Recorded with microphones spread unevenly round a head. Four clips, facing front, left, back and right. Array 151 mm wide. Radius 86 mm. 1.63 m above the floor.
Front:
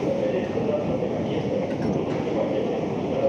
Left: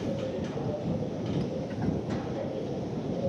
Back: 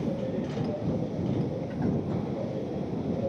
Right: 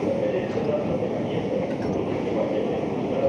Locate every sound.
0.0 s a machine running: 45° right